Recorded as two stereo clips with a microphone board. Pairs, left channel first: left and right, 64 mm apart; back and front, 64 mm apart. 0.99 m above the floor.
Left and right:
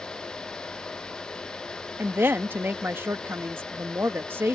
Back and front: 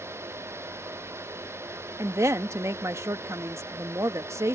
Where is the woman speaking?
35° right.